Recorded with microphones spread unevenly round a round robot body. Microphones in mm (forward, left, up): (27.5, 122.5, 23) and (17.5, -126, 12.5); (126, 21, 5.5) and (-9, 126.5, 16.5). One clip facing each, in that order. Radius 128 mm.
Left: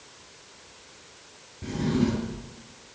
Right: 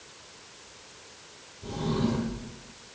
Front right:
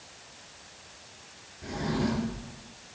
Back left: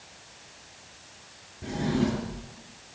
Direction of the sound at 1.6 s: 85° left.